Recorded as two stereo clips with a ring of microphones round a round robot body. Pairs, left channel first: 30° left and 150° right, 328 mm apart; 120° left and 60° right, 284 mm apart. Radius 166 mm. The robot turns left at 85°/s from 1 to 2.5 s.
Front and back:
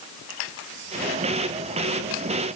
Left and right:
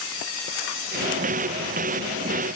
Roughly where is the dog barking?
No dog barking in this recording.